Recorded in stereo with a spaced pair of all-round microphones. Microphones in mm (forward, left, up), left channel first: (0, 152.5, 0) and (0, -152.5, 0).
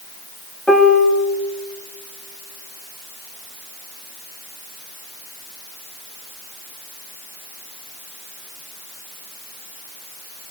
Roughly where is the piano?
Centre.